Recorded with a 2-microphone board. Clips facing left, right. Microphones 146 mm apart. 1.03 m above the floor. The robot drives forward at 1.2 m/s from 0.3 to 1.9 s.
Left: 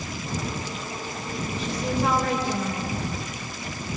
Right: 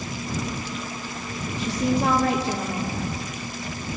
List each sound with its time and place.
1.6 s a woman speaking: 70° right (ahead or behind), 2 m; by 3.0 s 60° right (ahead or behind), 2 m